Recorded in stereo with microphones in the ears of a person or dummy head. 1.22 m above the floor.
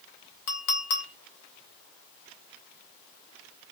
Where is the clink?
60° left (ahead or behind), 1.1 m.